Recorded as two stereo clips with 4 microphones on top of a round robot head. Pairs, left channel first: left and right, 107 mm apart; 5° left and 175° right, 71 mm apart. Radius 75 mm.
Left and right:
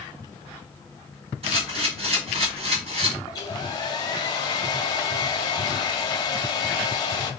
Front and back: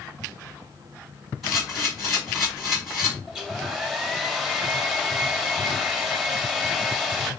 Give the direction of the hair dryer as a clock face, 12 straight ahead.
9 o'clock.